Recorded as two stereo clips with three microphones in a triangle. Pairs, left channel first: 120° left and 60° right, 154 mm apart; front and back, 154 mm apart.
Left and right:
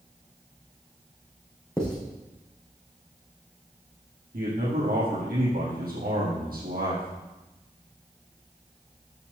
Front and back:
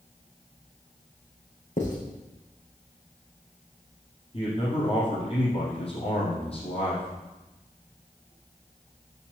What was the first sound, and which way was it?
Writing, 35° left.